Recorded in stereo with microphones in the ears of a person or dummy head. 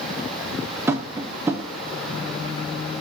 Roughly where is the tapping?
Centre.